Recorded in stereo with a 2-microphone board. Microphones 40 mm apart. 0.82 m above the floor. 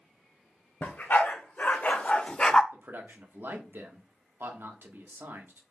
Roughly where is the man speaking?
Right.